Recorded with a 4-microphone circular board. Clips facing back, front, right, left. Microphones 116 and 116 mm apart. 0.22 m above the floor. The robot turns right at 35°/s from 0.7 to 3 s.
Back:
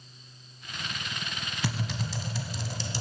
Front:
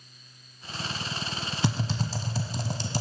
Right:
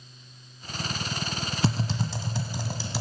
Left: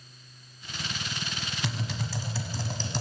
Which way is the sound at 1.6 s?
55° right.